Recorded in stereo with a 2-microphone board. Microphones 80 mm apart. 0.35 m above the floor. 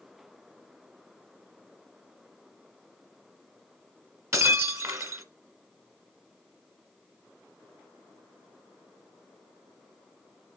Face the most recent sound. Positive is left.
turn(degrees=-40)  # may be behind; listen again after turning